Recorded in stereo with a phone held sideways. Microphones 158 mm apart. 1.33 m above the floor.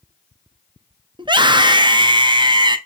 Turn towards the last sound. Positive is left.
turn(degrees=-30)  # may be behind; listen again after turning